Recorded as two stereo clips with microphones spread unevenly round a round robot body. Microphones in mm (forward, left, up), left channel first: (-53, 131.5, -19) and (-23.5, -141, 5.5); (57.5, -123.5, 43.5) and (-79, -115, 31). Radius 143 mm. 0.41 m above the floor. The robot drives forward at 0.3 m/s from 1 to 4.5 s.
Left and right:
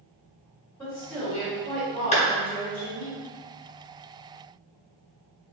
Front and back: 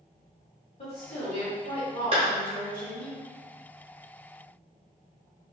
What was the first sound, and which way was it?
A woman speaking, 15° left.